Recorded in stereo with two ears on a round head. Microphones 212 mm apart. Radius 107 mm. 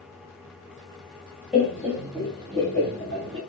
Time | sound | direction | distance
1.5 | laughter | centre (ahead or behind) | 1.3 m